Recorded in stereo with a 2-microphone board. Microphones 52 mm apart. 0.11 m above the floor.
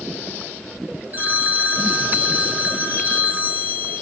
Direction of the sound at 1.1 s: 35° right (ahead or behind).